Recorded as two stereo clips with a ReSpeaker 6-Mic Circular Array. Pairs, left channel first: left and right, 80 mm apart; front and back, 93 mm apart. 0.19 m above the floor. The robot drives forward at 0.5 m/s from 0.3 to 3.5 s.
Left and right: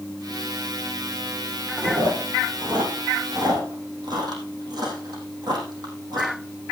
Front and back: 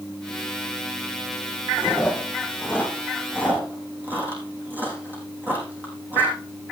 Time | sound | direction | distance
1.8 | chewing | 100° right | 4.5 m